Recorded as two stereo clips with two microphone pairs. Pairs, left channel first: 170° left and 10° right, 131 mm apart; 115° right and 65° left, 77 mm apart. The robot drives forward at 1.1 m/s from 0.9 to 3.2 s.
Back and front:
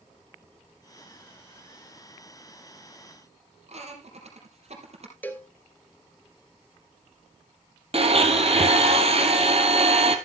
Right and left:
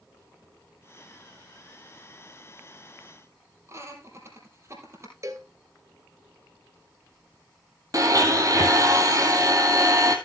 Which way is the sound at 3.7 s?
15° left.